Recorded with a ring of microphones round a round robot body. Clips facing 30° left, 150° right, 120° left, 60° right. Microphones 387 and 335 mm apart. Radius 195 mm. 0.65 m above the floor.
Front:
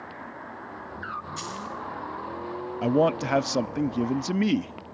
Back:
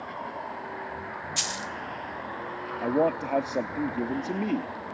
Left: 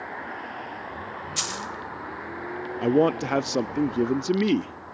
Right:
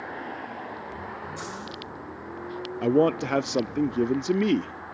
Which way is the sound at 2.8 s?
35° left.